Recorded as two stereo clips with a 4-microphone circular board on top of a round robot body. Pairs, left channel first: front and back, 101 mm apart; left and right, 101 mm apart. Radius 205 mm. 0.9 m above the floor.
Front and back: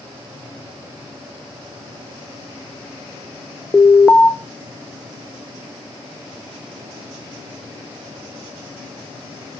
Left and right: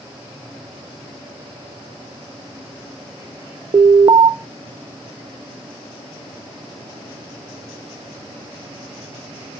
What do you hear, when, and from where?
3.7 s an alarm: 70° right, 1.0 m